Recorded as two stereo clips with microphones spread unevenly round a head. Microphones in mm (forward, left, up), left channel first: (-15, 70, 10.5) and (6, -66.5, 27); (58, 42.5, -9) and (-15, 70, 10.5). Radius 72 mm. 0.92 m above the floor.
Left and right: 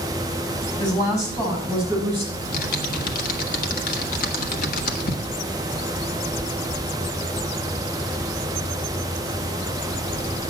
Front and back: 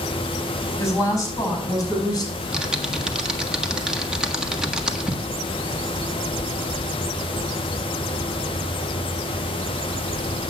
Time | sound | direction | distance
0.8 | a woman speaking | 30° left | 5 m
2.3 | typing on a keyboard | 75° left | 1.5 m